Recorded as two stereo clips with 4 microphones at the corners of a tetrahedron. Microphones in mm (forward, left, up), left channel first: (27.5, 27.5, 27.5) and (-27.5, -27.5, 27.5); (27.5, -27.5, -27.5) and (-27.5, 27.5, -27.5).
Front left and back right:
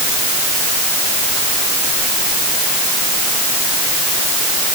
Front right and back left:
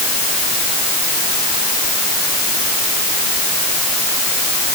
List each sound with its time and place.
Only background noise.